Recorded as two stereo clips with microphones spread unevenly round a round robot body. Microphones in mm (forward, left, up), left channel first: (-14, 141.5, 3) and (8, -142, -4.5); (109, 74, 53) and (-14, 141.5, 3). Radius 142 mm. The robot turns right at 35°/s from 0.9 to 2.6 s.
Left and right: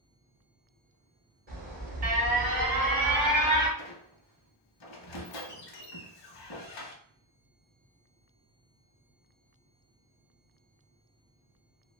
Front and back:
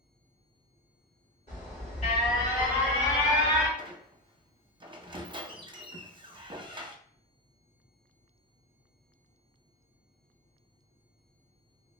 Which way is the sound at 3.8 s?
85° left.